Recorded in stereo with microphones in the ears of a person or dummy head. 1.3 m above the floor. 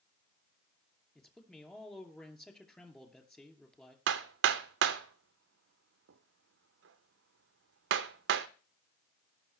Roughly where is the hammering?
Right.